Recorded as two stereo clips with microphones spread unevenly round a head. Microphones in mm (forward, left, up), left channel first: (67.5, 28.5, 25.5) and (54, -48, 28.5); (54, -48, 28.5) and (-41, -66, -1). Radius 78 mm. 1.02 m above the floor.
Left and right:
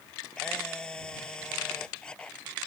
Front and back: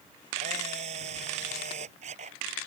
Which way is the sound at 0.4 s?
165° left.